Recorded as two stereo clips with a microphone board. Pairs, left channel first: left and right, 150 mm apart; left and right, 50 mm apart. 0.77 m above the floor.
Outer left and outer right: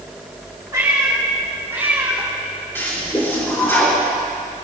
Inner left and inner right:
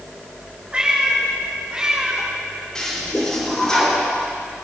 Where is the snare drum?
I don't hear a snare drum.